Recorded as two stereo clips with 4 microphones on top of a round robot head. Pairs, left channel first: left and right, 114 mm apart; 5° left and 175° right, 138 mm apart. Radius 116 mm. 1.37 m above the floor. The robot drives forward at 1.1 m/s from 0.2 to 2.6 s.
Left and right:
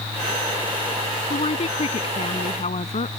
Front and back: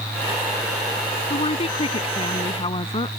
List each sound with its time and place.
1.3 s a woman speaking: 55° left; by 3.1 s 60° left